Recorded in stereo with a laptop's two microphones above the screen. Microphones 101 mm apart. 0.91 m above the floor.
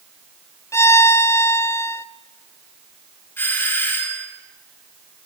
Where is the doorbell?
20° left (ahead or behind), 2.5 m.